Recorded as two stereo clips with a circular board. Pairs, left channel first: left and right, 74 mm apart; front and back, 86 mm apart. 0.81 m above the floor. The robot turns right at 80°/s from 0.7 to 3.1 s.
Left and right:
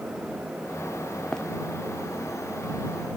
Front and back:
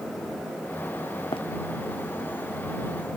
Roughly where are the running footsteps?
Ahead.